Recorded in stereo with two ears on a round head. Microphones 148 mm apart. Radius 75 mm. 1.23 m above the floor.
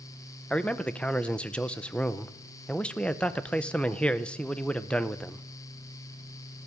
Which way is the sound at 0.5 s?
5° left (ahead or behind).